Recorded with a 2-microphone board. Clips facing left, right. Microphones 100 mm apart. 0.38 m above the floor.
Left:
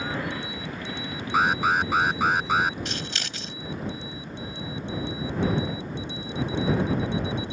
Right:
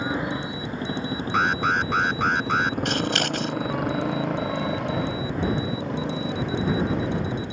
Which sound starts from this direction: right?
Scissors, at 2.9 s.